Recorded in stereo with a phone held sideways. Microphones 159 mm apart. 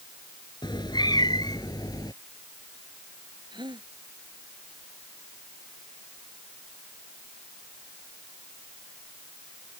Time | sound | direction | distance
0.6 | a cat meowing | 25° left (ahead or behind) | ?
3.5 | a gasp | 25° right (ahead or behind) | ?